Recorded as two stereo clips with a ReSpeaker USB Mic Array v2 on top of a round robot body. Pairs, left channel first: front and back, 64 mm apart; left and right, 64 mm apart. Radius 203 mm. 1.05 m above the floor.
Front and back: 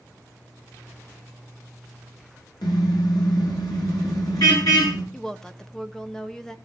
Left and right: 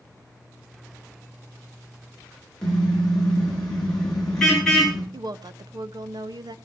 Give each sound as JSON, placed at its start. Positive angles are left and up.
{"t": 2.6, "sound": "a car horn", "azimuth_deg": 10, "distance_m": 8.5}
{"t": 5.1, "sound": "a woman speaking", "azimuth_deg": -80, "distance_m": 1.4}